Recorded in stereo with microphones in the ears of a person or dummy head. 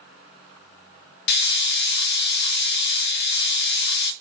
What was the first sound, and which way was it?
A hiss, 60° left (ahead or behind).